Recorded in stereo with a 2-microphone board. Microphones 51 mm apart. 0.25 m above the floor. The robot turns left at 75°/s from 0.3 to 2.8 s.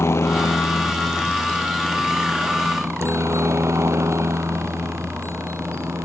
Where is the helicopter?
55° left (ahead or behind); by 6.1 s 65° right (ahead or behind).